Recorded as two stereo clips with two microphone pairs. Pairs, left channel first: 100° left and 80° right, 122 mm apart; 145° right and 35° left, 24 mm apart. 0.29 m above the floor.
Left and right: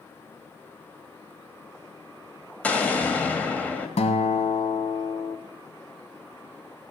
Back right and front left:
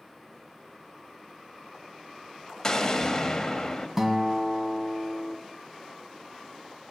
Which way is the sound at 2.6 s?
165° left.